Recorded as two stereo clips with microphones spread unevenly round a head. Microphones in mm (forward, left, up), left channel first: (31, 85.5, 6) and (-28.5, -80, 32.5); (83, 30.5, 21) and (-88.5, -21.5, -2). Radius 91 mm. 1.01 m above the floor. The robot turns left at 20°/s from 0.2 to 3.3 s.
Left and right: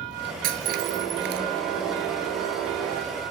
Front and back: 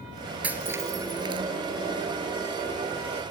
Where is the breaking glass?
80° right, 2 m; by 1.5 s 100° right, 2 m.